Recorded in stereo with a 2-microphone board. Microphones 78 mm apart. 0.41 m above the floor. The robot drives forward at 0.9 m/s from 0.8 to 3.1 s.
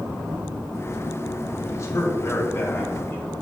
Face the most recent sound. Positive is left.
turn(degrees=30)  # may be behind; listen again after turning